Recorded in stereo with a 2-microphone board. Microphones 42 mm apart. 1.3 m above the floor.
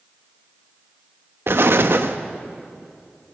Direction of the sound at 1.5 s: 65° right (ahead or behind).